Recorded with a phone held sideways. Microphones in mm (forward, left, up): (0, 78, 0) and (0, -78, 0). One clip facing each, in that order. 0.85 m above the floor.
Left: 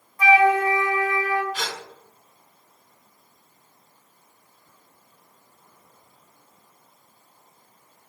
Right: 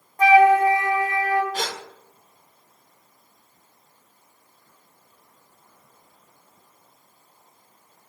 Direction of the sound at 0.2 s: 45° right (ahead or behind).